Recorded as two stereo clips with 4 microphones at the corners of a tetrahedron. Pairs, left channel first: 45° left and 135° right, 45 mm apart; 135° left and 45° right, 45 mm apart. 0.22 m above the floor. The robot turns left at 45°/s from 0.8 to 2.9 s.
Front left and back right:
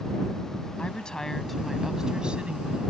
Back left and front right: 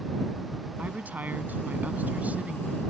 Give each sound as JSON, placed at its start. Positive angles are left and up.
{"t": 0.8, "sound": "a woman speaking", "azimuth_deg": -10}